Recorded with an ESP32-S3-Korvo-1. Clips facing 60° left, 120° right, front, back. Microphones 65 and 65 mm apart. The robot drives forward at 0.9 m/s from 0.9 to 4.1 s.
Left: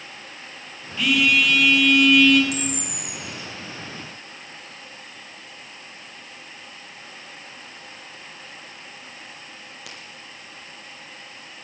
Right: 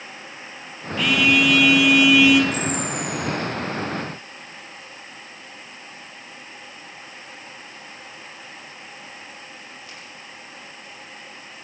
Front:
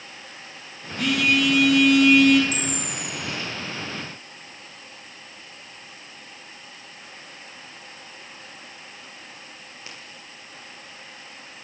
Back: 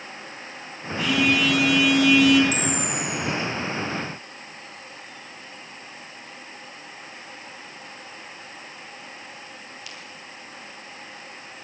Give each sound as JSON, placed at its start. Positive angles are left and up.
{"t": 1.0, "sound": "a phone buzzing", "azimuth_deg": -30, "distance_m": 4.0}
{"t": 2.5, "sound": "a camera shutter", "azimuth_deg": 50, "distance_m": 6.5}